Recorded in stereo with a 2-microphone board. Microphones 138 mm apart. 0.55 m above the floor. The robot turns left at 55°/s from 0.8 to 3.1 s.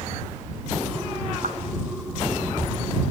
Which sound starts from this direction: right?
A clap, at 1.4 s.